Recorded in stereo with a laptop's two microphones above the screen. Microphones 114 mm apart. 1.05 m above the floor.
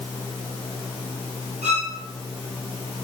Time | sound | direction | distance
1.6 | a violin | 75° right (ahead or behind) | 3 m